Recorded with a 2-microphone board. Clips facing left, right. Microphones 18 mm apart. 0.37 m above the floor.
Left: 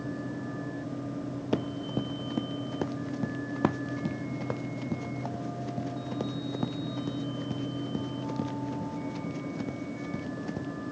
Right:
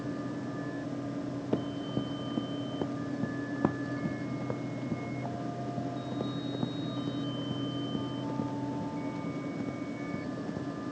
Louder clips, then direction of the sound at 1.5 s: Left 2 dB; 70° left (ahead or behind).